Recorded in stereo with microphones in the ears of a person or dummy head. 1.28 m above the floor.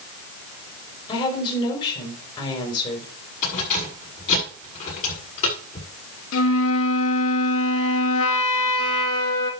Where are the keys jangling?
40° left (ahead or behind), 6.5 m.